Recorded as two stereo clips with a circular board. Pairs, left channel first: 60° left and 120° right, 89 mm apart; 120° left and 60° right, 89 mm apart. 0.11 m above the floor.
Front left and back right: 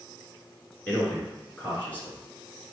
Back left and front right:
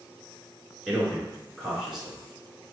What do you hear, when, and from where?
0.9 s a man speaking: 20° left, 1.4 m